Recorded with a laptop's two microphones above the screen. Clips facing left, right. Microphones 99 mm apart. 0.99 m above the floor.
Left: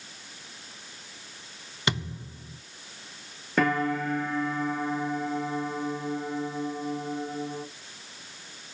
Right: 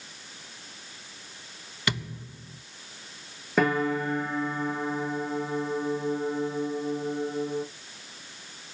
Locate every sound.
1.9 s a thud: 25° left (ahead or behind), 1.0 m
3.6 s a piano: 5° right (ahead or behind), 0.9 m